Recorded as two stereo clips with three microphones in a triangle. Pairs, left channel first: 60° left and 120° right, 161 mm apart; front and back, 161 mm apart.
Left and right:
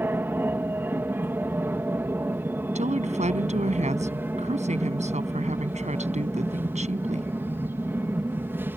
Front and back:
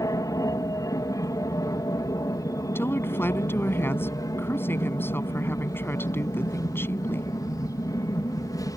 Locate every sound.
0.0 s an aircraft: 50° right
2.8 s a woman speaking: 75° right